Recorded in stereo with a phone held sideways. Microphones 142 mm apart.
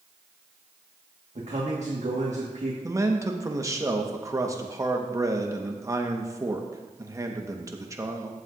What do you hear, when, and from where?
1.4 s a man speaking: 60° right (ahead or behind), 1.5 m
2.8 s a man speaking: 25° right (ahead or behind), 1.0 m